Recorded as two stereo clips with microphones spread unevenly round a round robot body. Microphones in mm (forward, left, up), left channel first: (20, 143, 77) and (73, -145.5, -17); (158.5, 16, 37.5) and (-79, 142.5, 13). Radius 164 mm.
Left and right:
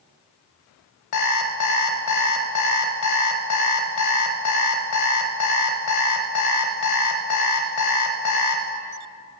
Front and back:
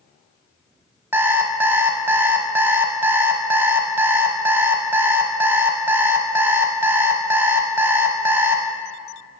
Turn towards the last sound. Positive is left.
turn(degrees=70)